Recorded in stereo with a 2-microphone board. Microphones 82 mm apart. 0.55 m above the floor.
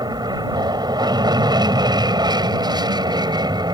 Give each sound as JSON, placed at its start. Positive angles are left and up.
{"t": 0.0, "sound": "an aircraft", "side_deg": -60}